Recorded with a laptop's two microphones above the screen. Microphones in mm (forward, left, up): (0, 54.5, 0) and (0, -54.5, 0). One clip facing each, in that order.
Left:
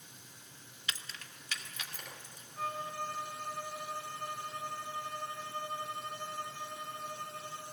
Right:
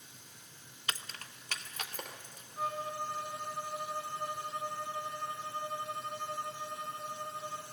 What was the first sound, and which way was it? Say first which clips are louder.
Keys jangling: right 3 dB; 50° right (ahead or behind).